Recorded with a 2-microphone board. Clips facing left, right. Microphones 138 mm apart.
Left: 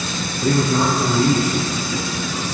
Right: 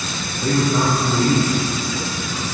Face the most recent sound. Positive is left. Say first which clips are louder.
# left 1 dB
turn(degrees=5)  # may be behind; listen again after turning